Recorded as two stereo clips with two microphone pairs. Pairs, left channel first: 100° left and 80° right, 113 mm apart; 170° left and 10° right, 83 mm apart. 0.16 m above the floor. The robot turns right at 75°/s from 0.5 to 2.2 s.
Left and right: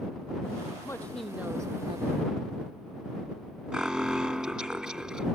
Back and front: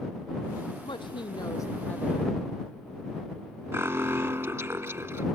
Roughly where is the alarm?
Ahead.